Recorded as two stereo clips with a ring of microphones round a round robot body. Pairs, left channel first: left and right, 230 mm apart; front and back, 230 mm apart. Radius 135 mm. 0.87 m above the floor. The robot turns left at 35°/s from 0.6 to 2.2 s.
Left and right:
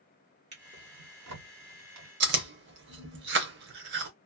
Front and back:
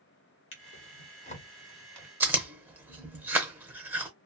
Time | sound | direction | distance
0.5 | a drawer | 40° right | 1.3 m
2.2 | chewing | 100° right | 0.7 m